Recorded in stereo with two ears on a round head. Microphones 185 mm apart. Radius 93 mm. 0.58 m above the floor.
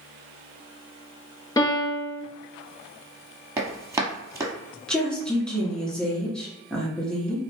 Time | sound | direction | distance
1.6 | a piano | 20° left (ahead or behind) | 0.7 m
3.6 | running footsteps | 15° right (ahead or behind) | 0.9 m
4.9 | a woman speaking | 5° left (ahead or behind) | 0.9 m